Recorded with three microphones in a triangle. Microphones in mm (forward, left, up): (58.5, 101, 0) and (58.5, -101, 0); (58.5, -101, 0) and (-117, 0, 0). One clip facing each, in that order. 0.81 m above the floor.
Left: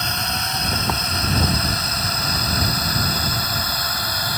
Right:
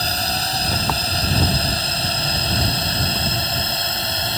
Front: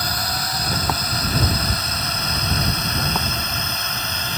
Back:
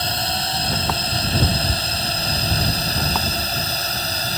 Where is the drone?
145° right; by 4.4 s 155° right.